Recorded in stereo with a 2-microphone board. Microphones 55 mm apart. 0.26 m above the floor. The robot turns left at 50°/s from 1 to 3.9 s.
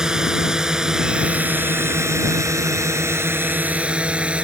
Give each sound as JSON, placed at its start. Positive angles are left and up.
{"t": 0.0, "sound": "a drone", "side_deg": -10}